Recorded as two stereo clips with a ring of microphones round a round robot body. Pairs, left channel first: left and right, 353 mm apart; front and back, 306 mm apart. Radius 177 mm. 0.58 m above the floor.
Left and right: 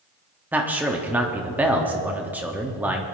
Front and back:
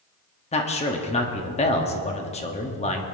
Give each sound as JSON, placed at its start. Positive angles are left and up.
{"t": 0.5, "sound": "a man speaking", "azimuth_deg": -15, "distance_m": 1.0}